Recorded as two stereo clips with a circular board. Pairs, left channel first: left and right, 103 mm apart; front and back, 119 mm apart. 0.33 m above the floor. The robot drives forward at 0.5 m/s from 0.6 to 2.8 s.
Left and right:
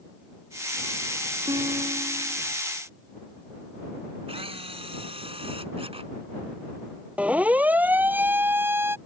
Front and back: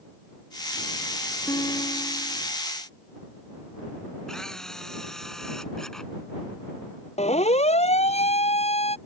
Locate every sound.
1.5 s a guitar: 55° right
4.3 s a camera shutter: 85° right
7.2 s a siren: 15° right; by 9.0 s 25° right